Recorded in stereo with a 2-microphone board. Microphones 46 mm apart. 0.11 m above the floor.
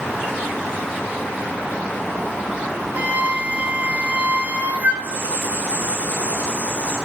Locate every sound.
3.0 s a flute: 35° right (ahead or behind), 1.4 m
5.0 s writing: 30° right (ahead or behind), 6 m